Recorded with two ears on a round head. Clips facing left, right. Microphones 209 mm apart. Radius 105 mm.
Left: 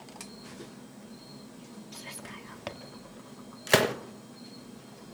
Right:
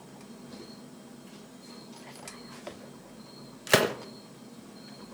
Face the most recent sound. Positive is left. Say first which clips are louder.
# even
turn(degrees=-5)  # may be behind; listen again after turning